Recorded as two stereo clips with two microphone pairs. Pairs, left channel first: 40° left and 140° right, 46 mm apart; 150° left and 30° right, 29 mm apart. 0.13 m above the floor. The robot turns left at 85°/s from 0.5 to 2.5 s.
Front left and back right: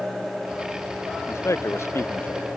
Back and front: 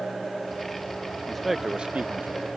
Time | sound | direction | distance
1.3 | a man speaking | 75° left | ?